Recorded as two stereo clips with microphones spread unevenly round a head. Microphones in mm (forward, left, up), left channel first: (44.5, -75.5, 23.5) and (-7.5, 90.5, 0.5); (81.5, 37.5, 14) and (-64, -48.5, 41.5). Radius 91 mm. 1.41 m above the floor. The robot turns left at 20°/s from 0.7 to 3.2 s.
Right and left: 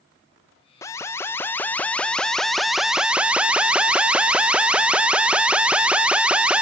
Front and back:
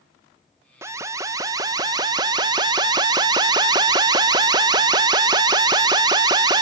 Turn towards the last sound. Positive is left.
turn(degrees=-160)